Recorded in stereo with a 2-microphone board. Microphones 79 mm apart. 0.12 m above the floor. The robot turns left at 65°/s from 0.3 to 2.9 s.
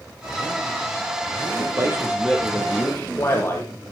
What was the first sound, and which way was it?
A man speaking, 130° right.